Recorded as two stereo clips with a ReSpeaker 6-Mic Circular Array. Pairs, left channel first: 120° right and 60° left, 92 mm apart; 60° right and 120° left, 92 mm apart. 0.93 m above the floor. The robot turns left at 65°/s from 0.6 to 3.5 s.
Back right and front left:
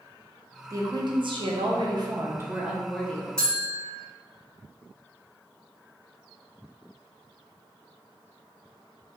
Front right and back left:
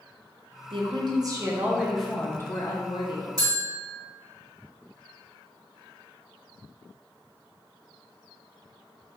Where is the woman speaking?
110° left, 0.6 m; by 3.3 s 55° right, 0.6 m.